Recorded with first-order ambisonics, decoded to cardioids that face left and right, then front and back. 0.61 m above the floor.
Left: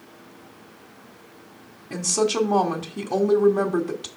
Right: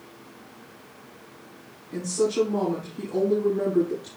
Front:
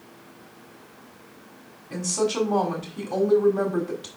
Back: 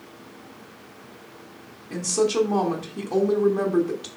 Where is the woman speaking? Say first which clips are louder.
Left 2 dB, back 3 dB; 100° left, 1.4 m.